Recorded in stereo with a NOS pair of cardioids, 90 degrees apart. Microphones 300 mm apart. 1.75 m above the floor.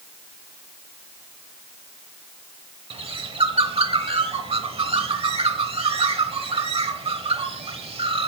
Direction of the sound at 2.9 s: 20° right.